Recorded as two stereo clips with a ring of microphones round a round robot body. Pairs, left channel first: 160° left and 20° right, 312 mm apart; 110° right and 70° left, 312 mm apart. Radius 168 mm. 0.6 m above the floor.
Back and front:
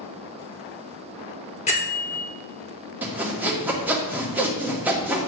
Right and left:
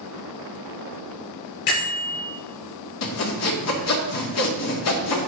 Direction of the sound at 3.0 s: 105° right.